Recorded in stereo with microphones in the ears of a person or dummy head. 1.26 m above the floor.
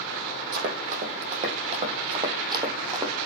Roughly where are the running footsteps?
Right.